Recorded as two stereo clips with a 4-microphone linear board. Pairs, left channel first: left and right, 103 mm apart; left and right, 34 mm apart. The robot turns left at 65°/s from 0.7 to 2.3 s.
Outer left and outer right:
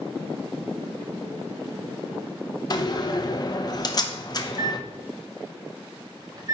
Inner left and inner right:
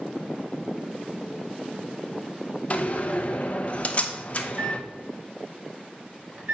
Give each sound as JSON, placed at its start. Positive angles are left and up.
{"t": 2.7, "sound": "a door slam", "side_deg": 40, "distance_m": 0.8}
{"t": 4.5, "sound": "a microwave", "side_deg": -35, "distance_m": 1.7}